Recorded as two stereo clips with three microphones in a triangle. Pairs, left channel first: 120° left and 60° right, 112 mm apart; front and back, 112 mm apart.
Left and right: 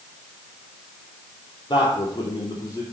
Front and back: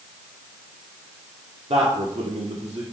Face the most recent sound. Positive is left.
turn(degrees=175)